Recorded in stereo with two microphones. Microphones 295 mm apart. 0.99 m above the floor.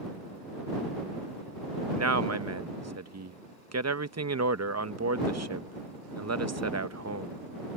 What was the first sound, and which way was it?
A man speaking, 65° right (ahead or behind).